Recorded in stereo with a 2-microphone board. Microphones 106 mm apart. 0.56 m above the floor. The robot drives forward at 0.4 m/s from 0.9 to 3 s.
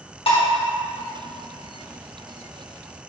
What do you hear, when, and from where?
0.3 s dishes clattering: 60° left (ahead or behind), 0.9 m